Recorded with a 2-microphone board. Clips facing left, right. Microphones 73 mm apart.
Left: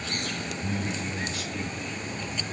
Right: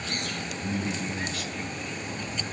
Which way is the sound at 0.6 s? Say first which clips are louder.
Right 2 dB; 35° left (ahead or behind).